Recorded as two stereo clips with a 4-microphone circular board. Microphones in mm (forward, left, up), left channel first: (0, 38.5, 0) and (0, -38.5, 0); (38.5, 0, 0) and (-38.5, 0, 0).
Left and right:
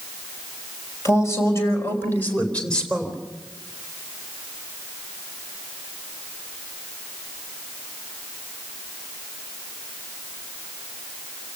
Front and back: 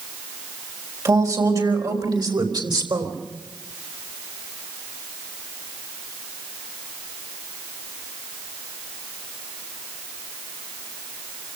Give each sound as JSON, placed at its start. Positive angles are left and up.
{"t": 1.1, "sound": "a man speaking", "azimuth_deg": 140, "distance_m": 5.5}